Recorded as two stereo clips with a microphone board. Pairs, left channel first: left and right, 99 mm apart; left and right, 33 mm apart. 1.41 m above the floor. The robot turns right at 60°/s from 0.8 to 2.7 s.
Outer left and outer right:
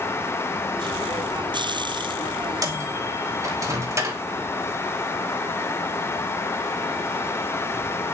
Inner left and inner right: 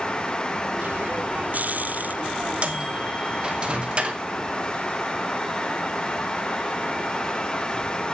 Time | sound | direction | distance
2.6 | a microwave | 35° right (ahead or behind) | 2.5 m